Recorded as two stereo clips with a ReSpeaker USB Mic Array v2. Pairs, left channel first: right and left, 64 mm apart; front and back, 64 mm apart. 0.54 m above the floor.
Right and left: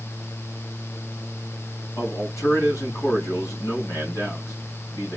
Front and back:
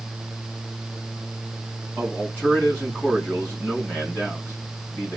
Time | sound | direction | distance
2.0 | a man speaking | 65° right | 2.5 m